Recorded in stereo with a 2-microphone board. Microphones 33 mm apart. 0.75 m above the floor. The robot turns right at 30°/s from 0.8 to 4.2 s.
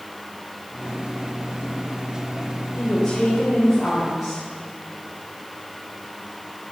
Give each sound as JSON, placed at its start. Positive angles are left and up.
{"t": 2.8, "sound": "a woman speaking", "azimuth_deg": 150, "distance_m": 3.5}